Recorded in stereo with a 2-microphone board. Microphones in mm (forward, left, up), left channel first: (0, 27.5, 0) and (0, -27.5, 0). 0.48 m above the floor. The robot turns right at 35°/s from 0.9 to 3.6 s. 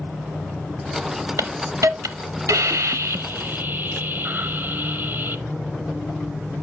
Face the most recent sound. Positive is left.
turn(degrees=-40)